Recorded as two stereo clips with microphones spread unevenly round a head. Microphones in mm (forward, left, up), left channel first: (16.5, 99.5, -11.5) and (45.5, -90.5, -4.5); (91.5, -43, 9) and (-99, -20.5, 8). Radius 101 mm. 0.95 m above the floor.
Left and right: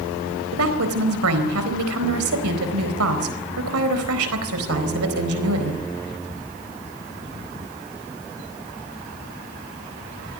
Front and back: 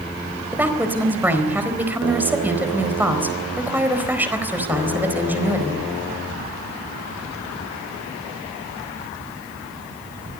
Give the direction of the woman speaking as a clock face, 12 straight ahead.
4 o'clock.